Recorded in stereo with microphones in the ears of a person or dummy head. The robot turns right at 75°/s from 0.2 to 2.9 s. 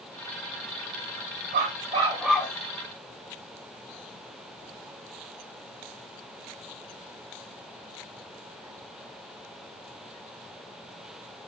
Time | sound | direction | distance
1.5 | a dog barking | 50° right | 2.5 m